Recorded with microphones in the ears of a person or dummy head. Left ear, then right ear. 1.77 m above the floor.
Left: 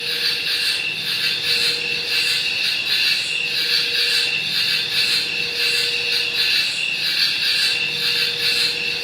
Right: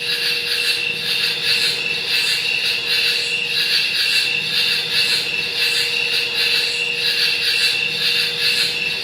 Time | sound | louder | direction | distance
0.0 | an insect | right 1 dB | 20° right (ahead or behind) | 1.3 m